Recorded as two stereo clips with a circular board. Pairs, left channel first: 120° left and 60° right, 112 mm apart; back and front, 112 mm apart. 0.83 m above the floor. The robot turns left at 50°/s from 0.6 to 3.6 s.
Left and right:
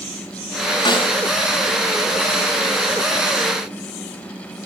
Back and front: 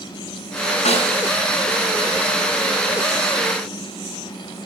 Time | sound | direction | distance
0.8 | a snare drum | 170° left | 6.5 m